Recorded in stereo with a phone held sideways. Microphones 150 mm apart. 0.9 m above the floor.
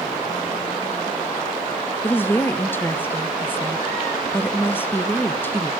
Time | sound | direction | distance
2.0 | a woman speaking | 15° left (ahead or behind) | 0.6 m